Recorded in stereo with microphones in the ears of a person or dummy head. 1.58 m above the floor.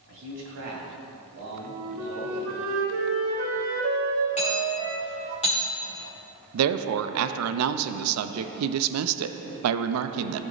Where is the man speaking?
70° right (ahead or behind), 2.5 m; by 2.5 s 45° right (ahead or behind), 4 m.